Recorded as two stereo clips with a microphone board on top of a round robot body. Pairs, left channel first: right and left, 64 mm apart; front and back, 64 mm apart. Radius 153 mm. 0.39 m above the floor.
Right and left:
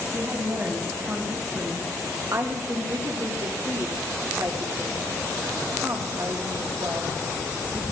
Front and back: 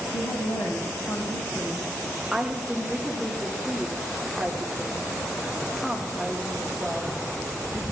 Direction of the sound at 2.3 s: 100° left.